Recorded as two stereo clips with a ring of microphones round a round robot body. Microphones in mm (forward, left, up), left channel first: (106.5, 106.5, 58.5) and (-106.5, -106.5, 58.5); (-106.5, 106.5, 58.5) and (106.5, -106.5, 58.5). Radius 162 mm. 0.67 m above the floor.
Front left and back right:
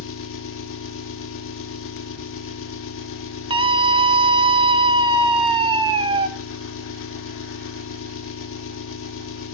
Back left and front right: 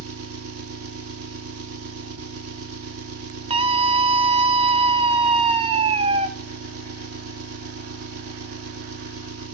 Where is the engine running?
5° right, 1.0 m.